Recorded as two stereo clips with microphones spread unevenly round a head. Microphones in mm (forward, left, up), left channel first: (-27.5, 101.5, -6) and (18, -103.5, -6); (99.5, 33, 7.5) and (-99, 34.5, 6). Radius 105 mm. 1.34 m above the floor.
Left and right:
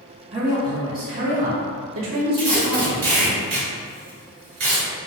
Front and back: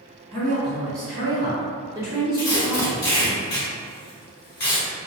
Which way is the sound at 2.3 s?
55° right.